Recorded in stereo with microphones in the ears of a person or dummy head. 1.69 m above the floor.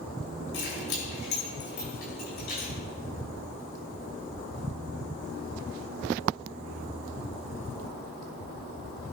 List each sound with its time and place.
0.5 s keys jangling: 65° left (ahead or behind), 3.5 m; by 2.7 s 45° left (ahead or behind), 3.5 m